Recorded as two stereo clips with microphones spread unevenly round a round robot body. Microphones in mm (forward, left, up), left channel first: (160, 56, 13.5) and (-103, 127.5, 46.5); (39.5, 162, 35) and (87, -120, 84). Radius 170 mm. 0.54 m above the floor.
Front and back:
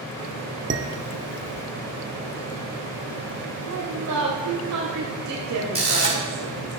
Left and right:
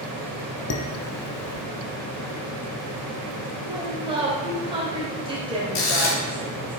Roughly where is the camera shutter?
Left.